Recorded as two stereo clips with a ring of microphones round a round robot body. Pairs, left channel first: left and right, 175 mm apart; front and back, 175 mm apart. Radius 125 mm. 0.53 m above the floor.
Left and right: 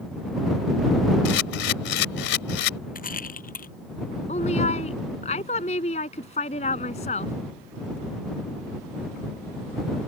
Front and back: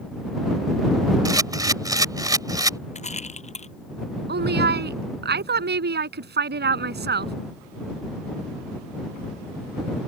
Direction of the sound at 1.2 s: 110° left.